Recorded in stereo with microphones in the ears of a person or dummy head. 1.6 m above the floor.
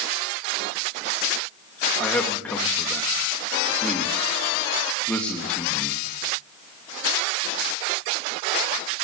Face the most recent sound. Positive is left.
turn(degrees=5)  # may be behind; listen again after turning